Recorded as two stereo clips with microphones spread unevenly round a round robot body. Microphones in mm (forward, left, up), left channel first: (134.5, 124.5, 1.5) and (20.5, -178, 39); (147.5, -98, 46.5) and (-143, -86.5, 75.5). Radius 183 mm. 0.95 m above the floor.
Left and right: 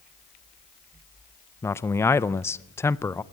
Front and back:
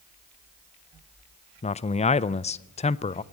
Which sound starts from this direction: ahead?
A man speaking, at 1.6 s.